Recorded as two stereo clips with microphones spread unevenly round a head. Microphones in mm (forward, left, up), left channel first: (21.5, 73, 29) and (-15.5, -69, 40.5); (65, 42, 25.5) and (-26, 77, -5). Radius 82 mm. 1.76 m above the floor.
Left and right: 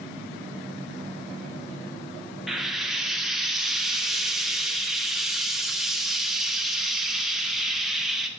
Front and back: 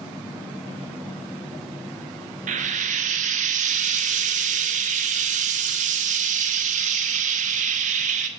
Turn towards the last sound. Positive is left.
turn(degrees=170)